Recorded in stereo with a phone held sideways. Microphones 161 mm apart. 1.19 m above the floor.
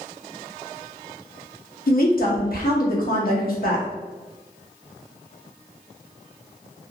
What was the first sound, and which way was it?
A woman speaking, 65° left (ahead or behind).